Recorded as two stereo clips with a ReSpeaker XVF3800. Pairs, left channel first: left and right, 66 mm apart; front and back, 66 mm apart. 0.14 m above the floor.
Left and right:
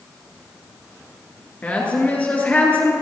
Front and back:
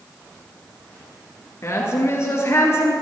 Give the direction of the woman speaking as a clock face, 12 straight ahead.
11 o'clock.